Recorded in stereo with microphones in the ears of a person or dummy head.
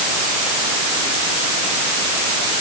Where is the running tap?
No running tap in this recording.